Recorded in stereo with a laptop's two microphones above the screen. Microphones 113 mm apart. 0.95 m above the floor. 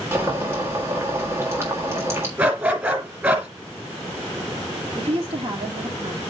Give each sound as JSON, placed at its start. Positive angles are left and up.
{"t": 0.1, "sound": "boiling", "side_deg": -20, "distance_m": 1.6}
{"t": 2.4, "sound": "a dog barking", "side_deg": -15, "distance_m": 2.0}
{"t": 5.0, "sound": "a woman speaking", "side_deg": -55, "distance_m": 1.7}